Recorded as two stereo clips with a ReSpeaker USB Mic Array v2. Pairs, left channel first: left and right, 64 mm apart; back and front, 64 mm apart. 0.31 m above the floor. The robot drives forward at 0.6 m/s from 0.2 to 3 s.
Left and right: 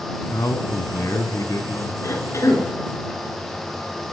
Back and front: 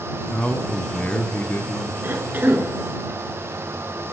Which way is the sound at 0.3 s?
110° left.